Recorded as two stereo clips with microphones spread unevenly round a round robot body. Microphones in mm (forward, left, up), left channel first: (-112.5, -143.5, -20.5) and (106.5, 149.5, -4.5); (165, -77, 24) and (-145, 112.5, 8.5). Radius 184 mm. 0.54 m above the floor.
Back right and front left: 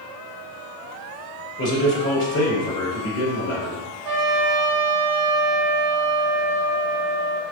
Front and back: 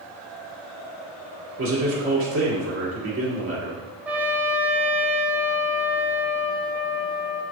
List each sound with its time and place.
1.6 s a man speaking: 170° right, 1.3 m
4.0 s a trumpet: 65° left, 0.5 m